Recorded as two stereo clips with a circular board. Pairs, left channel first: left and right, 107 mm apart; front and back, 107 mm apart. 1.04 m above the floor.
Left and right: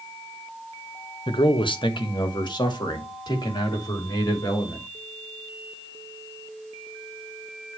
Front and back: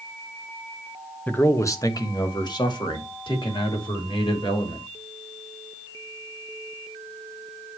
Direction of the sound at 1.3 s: 70° left.